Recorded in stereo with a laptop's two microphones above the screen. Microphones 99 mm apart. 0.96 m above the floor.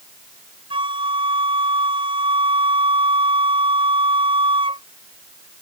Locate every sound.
0.7 s a flute: 60° right (ahead or behind)